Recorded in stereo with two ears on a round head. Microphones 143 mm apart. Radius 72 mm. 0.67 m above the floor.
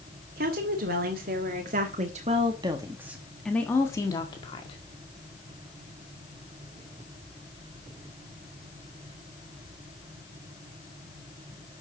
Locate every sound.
0.4 s a woman speaking: 65° right (ahead or behind), 2.5 m; by 4.8 s 35° left (ahead or behind), 2.0 m